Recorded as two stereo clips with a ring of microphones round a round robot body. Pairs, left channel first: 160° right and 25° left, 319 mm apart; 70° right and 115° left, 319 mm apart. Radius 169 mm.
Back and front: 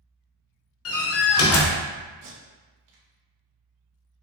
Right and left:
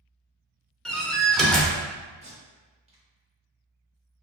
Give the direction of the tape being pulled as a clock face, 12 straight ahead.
11 o'clock.